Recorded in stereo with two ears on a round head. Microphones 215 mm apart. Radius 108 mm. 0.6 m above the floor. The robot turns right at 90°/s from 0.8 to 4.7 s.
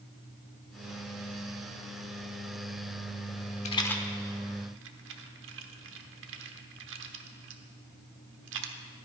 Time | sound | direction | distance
3.6 | a rattle | 30° left (ahead or behind) | 1.1 m